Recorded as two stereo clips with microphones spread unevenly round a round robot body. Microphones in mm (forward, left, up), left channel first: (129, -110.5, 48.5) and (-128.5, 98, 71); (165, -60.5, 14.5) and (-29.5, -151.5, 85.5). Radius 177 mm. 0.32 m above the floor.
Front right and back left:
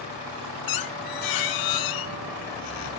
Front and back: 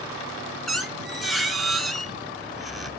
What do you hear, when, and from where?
0.7 s a squeak: 65° right, 1.1 m